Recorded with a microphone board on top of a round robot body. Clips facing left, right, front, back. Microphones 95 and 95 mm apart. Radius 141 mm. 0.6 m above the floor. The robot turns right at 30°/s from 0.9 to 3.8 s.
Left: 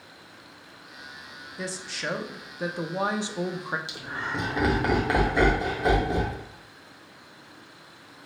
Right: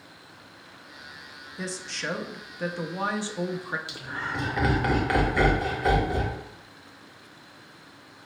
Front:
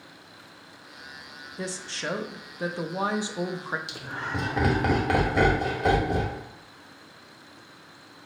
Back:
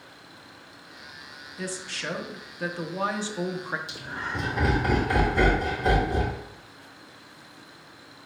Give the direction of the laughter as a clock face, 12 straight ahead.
11 o'clock.